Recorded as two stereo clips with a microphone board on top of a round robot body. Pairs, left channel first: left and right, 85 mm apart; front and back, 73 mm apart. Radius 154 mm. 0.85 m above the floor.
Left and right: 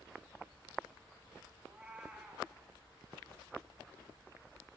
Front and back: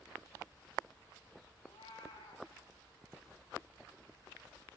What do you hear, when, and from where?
1.6 s a cat meowing: 10° right, 3 m